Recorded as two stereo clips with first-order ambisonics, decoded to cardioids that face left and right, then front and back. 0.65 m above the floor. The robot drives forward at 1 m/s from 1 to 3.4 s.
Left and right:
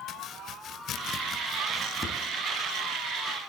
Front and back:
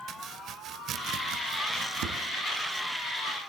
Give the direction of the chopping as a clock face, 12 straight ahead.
7 o'clock.